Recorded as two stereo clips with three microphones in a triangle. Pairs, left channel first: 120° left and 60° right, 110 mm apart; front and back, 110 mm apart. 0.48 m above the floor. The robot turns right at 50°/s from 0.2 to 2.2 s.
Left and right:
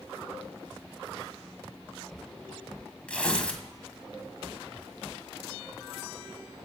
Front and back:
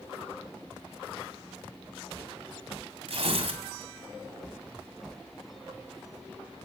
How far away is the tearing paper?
About 2 m.